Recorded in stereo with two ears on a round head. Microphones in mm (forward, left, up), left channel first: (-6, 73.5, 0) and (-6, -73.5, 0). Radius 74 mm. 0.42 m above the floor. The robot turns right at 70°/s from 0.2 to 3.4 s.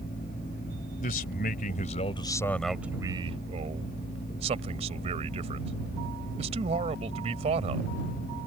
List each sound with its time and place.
1.0 s a man speaking: 60° left; by 7.9 s 130° right